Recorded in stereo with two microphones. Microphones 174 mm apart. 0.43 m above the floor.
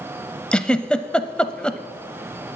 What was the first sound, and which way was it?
A giggle, 5° left (ahead or behind).